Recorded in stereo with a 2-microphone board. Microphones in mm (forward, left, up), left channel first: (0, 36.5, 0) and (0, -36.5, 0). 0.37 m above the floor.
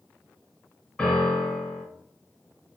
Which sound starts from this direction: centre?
A piano, at 1.0 s.